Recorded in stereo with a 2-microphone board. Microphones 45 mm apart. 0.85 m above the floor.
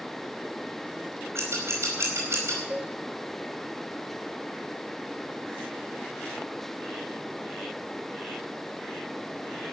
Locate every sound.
1.4 s scissors: 70° right (ahead or behind), 5 m
2.7 s a cowbell: 35° right (ahead or behind), 2.0 m